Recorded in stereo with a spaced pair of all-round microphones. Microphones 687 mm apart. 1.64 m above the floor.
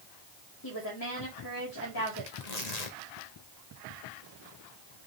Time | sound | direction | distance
0.6 | a woman speaking | 30° left (ahead or behind) | 4.5 m
2.3 | tearing paper | 65° left (ahead or behind) | 1.9 m